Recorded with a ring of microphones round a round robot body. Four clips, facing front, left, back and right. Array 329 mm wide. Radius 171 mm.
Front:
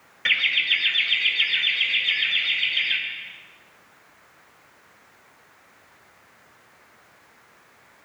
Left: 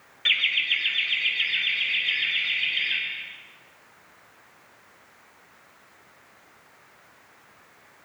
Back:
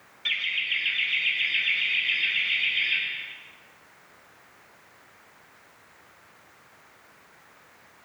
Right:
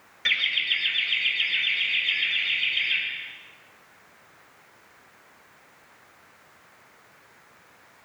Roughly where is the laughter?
Ahead.